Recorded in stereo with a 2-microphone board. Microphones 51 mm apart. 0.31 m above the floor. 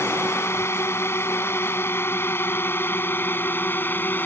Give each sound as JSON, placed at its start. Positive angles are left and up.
{"t": 0.0, "sound": "a drone", "side_deg": 60}